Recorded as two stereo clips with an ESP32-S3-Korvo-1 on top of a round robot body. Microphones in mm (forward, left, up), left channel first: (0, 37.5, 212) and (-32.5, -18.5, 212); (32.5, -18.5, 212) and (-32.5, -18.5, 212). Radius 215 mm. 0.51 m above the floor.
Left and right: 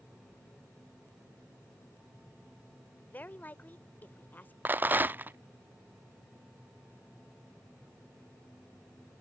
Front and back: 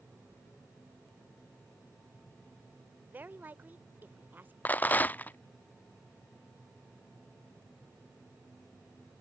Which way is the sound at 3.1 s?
120° left.